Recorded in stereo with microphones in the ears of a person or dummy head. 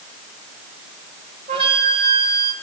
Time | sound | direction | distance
1.5 | a flute | 30° right (ahead or behind) | 2 m